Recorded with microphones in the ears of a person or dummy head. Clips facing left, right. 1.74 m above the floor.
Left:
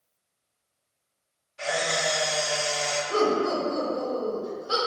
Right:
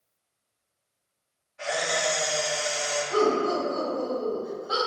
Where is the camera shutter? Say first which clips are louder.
Even; 55° left (ahead or behind), 1.3 m.